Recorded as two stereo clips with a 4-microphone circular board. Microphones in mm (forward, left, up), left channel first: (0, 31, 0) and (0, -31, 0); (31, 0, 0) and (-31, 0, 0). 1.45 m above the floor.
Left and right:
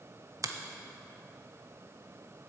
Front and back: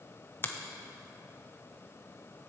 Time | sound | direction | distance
0.4 | a finger snap | 55° right | 0.7 m